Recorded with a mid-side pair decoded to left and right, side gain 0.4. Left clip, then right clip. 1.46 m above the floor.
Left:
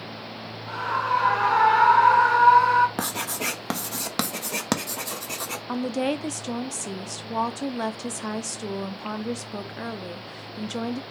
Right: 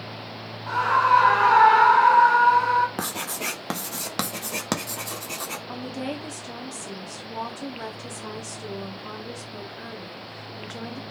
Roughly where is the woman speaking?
Ahead left.